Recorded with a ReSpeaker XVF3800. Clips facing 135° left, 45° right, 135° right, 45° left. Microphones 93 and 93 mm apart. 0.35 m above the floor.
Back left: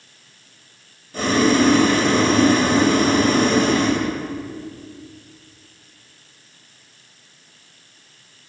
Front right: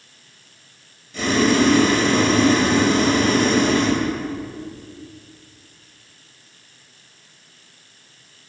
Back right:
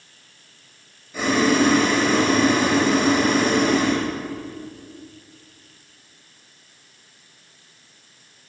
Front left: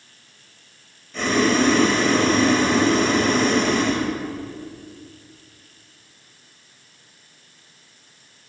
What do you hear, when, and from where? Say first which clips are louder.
1.1 s boiling: back left 1 dB, back right 1 dB; 145° left, 2.0 m